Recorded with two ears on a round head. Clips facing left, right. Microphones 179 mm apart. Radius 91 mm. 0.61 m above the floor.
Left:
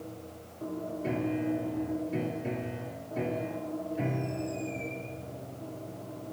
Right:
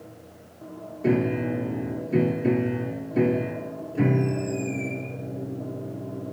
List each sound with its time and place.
1.0 s a piano: 75° right (ahead or behind)